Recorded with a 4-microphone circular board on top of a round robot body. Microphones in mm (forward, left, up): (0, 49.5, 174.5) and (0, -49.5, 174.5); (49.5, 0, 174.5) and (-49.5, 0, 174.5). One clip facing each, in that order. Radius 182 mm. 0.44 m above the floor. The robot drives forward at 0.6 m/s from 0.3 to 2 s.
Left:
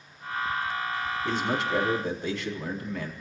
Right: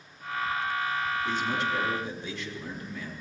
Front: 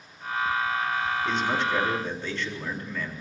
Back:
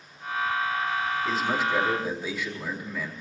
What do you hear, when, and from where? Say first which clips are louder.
1.2 s a man speaking: left 1 dB, back 1 dB; 95° left, 4.5 m; by 3.1 s 100° left, 4.5 m